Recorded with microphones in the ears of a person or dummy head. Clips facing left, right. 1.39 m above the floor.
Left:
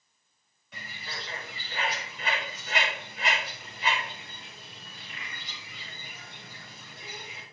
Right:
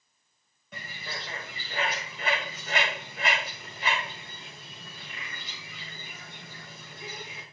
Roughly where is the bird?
Right.